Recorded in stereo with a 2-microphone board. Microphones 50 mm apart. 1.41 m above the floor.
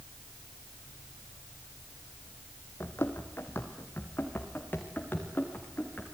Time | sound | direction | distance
2.8 | running footsteps | 55° left (ahead or behind) | 3 m